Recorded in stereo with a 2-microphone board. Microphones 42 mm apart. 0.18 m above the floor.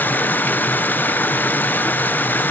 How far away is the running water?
About 0.7 m.